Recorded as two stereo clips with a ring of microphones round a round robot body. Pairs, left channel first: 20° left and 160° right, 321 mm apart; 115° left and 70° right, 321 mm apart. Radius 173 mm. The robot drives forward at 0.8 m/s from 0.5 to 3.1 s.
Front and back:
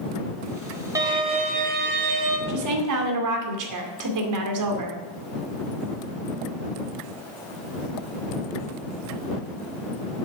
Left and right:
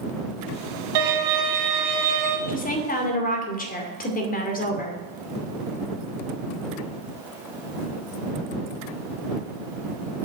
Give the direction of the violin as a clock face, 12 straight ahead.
3 o'clock.